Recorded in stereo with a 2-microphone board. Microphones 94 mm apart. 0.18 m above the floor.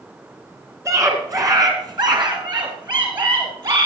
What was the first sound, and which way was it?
A scream, 30° right (ahead or behind).